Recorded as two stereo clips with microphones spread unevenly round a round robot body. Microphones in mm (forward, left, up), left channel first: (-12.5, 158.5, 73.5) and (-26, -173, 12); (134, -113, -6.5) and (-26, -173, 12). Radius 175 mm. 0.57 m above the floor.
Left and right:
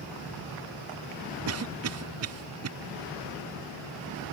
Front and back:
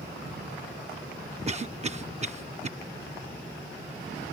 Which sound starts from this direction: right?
A cough, at 1.5 s.